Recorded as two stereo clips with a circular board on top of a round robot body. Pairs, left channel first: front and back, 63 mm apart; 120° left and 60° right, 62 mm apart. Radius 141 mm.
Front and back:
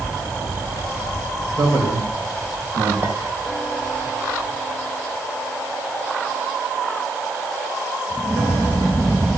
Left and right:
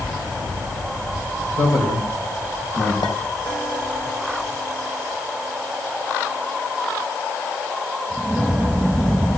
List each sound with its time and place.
1.6 s a man speaking: 145° left, 3 m
3.0 s a clink: 130° left, 2 m